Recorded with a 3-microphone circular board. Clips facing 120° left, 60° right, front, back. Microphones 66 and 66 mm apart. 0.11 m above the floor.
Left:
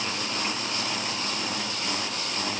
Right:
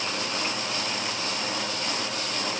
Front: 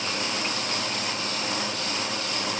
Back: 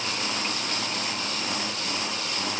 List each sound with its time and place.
Only background noise.